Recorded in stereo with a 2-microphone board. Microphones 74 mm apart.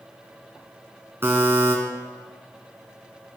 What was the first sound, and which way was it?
A buzzer, 35° right (ahead or behind).